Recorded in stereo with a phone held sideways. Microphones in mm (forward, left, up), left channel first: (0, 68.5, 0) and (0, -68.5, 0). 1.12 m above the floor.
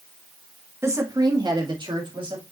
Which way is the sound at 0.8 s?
20° right (ahead or behind).